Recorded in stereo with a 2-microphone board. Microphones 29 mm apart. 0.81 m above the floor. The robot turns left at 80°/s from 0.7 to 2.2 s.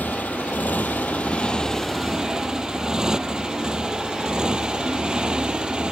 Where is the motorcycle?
80° left; by 5.9 s 30° right (ahead or behind).